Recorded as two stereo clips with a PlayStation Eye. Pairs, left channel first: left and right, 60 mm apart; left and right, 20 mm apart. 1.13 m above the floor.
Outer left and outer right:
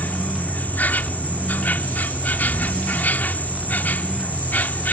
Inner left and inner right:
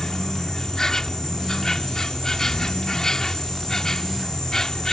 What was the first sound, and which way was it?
An insect, 30° left (ahead or behind).